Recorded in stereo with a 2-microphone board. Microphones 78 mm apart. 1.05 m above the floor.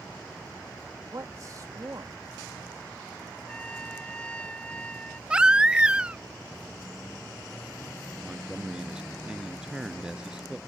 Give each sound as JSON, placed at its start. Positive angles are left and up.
{"t": 1.1, "sound": "a man speaking", "side_deg": -45}
{"t": 3.5, "sound": "a trumpet", "side_deg": 15}
{"t": 5.3, "sound": "a baby crying", "side_deg": -10}
{"t": 8.2, "sound": "a man speaking", "side_deg": -10}